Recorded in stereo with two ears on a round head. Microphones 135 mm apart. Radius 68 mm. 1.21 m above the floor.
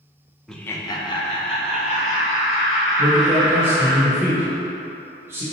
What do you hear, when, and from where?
0.5 s laughter: centre (ahead or behind), 0.5 m; by 4.0 s 60° left (ahead or behind), 3 m
3.0 s a man speaking: 15° right (ahead or behind), 1.1 m